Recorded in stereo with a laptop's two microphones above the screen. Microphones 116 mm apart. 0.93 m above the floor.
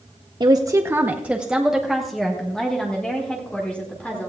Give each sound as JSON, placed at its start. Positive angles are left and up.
{"t": 0.4, "sound": "a woman speaking", "side_deg": -40, "distance_m": 0.5}